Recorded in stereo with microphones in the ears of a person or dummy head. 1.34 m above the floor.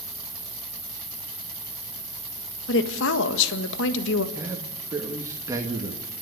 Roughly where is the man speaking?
Right.